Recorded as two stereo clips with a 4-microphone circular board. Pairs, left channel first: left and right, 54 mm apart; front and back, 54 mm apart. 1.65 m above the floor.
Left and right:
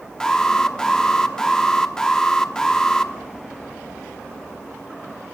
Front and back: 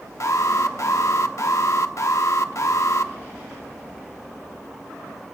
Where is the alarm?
15° left, 0.9 m.